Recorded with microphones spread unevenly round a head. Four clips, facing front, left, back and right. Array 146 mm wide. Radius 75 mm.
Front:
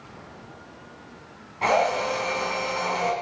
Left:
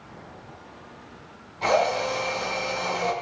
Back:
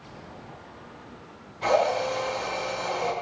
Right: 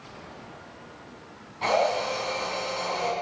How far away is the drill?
About 5 m.